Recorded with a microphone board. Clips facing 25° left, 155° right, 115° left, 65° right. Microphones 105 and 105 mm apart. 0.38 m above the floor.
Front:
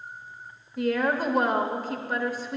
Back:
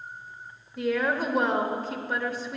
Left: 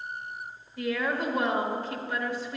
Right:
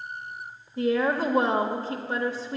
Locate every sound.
0.8 s a woman speaking: 65° right, 0.9 m